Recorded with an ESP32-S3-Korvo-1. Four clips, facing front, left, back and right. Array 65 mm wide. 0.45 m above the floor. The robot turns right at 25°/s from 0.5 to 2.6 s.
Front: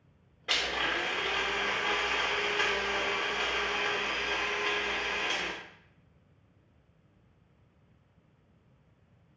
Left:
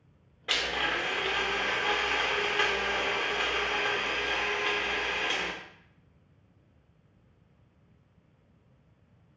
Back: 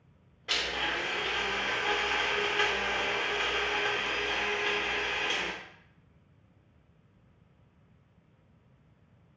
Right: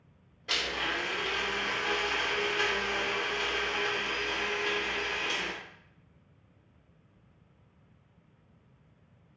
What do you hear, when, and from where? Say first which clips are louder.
0.5 s a blender: left 3 dB, front 1 dB; 65° left, 0.7 m; by 5.5 s 120° left, 0.7 m